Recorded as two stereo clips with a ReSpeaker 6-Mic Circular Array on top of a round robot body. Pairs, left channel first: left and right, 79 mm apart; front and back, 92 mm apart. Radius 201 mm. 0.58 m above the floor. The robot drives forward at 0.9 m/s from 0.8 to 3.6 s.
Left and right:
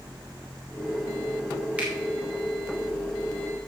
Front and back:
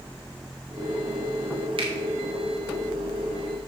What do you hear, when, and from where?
1.8 s a finger snap: 165° right, 3 m